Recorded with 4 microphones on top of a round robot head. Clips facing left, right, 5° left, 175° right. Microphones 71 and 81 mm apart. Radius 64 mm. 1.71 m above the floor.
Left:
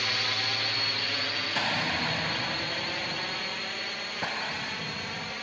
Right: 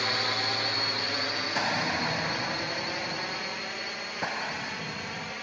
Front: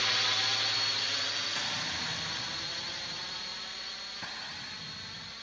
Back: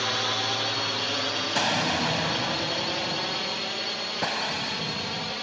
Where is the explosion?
170° right.